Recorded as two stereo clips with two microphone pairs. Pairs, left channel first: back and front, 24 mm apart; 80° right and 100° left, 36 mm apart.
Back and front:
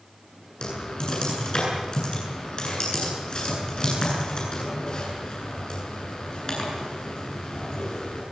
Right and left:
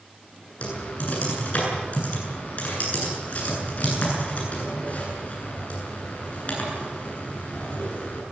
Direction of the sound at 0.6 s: 130° right.